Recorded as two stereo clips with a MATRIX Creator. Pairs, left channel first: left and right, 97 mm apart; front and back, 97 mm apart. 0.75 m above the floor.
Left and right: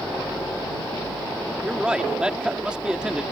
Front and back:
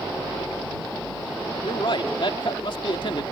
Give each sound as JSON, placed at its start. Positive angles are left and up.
{"t": 1.6, "sound": "a man speaking", "azimuth_deg": -10}